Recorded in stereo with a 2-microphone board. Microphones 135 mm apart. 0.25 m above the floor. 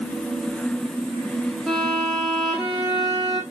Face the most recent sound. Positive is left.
turn(degrees=-5)  # may be behind; listen again after turning